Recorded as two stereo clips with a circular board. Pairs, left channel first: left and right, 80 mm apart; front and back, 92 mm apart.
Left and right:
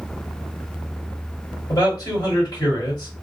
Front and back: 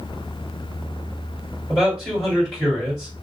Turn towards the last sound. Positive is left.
turn(degrees=95)